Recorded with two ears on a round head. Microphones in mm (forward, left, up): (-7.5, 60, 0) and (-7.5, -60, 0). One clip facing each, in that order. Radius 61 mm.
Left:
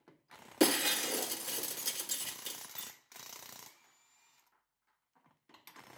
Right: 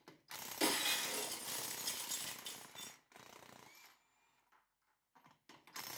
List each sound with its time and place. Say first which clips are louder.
0.6 s breaking glass: left 9 dB; 70° left (ahead or behind), 1.6 m